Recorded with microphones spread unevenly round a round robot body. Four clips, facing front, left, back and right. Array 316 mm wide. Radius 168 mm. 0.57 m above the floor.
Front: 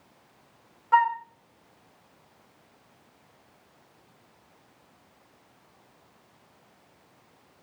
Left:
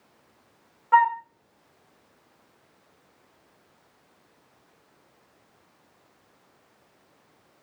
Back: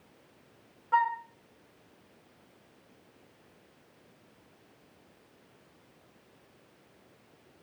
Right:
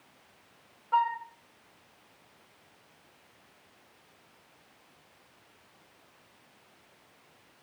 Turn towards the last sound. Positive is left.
turn(degrees=60)